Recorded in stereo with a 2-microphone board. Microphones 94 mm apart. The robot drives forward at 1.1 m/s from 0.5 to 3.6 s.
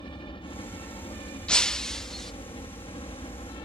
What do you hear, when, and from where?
0.0 s a helicopter: 65° left (ahead or behind); by 3.6 s 70° left (ahead or behind)
1.5 s breaking glass: 10° left (ahead or behind); by 2.3 s 5° left (ahead or behind)